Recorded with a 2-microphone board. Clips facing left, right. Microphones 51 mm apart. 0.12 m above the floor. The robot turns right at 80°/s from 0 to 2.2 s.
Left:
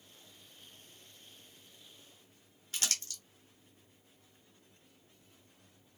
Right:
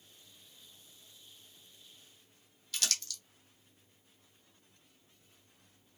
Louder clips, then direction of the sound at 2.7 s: Right 1 dB; 35° left (ahead or behind).